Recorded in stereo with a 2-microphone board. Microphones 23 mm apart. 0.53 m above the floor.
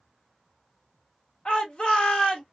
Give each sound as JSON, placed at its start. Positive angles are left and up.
{"t": 1.4, "sound": "a shout", "side_deg": 50, "distance_m": 1.3}